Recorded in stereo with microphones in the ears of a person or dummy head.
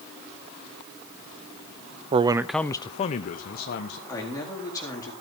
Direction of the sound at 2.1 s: 30° right (ahead or behind).